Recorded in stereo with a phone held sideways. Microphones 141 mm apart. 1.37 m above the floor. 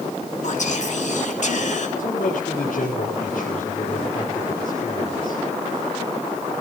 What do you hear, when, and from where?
0.4 s whispering: 60° left (ahead or behind), 3.5 m
2.0 s a man speaking: 75° left (ahead or behind), 4.5 m